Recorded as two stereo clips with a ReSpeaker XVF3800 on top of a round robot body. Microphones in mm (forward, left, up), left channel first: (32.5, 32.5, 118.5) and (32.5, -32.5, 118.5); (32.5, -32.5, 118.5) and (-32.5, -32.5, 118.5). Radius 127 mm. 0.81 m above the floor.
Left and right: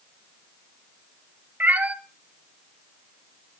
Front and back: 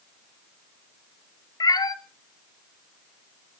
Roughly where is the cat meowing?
Ahead right.